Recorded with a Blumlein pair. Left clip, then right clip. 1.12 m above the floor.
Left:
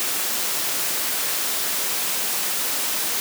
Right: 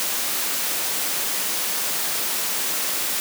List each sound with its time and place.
Only background noise.